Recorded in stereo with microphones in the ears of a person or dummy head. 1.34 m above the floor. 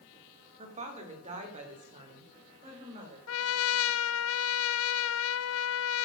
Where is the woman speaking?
40° right (ahead or behind), 2.5 m; by 3.2 s 35° right (ahead or behind), 5 m.